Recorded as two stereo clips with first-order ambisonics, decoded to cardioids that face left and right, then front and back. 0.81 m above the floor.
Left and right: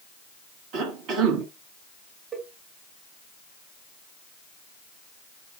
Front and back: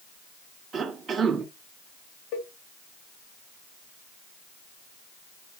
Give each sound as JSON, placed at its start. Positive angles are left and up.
{"t": 0.7, "sound": "a cough", "azimuth_deg": -115, "distance_m": 1.8}
{"t": 2.3, "sound": "a cowbell", "azimuth_deg": -20, "distance_m": 2.5}